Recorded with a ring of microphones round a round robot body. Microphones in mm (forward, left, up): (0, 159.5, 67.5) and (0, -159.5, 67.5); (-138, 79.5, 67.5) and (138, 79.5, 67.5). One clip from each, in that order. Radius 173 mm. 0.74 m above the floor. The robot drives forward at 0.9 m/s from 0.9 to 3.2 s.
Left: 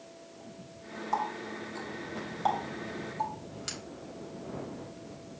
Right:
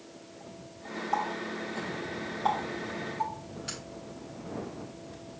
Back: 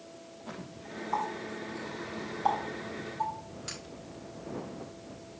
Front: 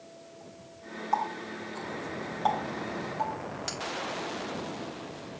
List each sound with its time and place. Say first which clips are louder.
1.1 s a running tap: right 1 dB, front 3 dB; 25° left, 4.5 m; by 3.8 s 45° left, 3 m